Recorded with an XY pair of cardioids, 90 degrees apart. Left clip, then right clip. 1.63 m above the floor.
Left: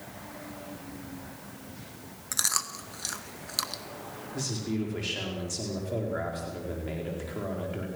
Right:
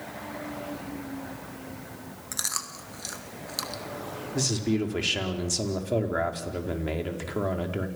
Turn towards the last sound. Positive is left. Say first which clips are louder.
# right 6 dB
turn(degrees=-55)